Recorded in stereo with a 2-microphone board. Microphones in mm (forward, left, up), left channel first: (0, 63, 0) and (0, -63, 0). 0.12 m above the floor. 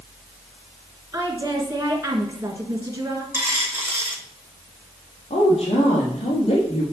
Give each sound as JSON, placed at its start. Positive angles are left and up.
{"t": 1.1, "sound": "a woman speaking", "side_deg": -25, "distance_m": 1.7}
{"t": 3.3, "sound": "a dropped coin", "side_deg": -20, "distance_m": 1.7}
{"t": 5.3, "sound": "a woman speaking", "side_deg": 50, "distance_m": 3.5}